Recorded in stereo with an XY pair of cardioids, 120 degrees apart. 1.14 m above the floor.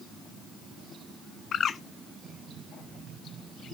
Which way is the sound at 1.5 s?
45° left.